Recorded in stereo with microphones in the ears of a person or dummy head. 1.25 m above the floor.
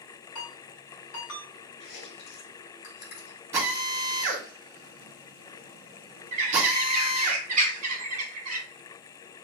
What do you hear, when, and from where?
0.3 s a ringtone: 75° left (ahead or behind), 3 m
1.8 s chewing: 55° left (ahead or behind), 3.5 m
3.5 s a drill: 15° right (ahead or behind), 2.5 m
6.3 s a bird: 40° right (ahead or behind), 1.3 m